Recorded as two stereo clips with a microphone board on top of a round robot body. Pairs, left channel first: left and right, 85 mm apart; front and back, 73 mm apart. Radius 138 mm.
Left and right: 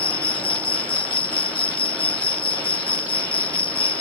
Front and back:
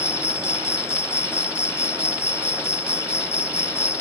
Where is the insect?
65° left.